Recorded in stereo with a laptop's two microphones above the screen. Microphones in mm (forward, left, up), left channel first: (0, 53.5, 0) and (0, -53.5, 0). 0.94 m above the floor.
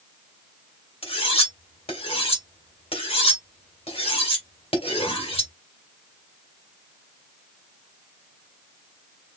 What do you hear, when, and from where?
1.0 s cutlery clinking: 60° left (ahead or behind), 1.9 m